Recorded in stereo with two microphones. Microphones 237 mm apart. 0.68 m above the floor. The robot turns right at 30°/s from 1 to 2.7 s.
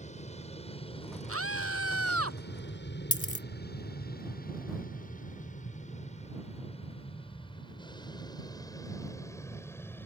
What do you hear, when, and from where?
0.0 s an aircraft: 30° left (ahead or behind); by 10.1 s 10° left (ahead or behind)
1.3 s a scream: 110° right; by 2.4 s 75° right
3.1 s a dropped coin: 75° left (ahead or behind)